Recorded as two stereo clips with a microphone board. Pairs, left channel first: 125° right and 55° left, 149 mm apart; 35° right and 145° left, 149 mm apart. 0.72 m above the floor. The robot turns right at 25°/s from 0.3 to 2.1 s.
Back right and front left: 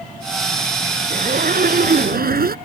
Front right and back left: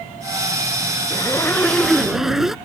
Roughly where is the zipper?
Ahead left.